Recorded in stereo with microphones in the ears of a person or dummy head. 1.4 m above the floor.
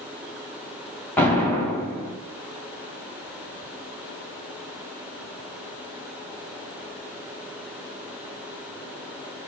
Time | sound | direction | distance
1.2 | an explosion | 10° left (ahead or behind) | 1.4 m